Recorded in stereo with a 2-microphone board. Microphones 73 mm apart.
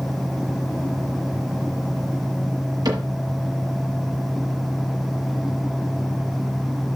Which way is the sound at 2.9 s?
65° right (ahead or behind).